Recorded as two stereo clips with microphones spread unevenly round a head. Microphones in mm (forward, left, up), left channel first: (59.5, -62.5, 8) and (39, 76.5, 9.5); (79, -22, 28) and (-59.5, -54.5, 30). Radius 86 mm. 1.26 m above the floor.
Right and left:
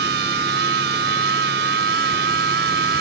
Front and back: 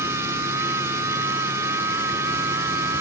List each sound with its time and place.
0.0 s a machine running: 115° left